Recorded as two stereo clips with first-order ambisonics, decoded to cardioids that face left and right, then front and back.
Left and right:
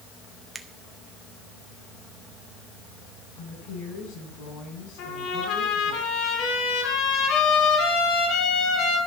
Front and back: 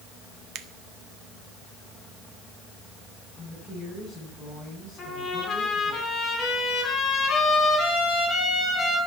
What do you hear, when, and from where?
0.6 s a finger snap: 165° right, 1.1 m
3.4 s a woman speaking: 65° left, 9.5 m
5.0 s a trumpet: 65° left, 5 m